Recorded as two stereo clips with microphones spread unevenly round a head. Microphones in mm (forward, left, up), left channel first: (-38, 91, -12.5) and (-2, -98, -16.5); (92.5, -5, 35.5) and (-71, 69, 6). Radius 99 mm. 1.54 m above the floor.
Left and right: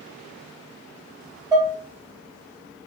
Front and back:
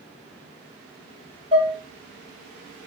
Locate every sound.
1.5 s dishes clattering: 140° right, 0.9 m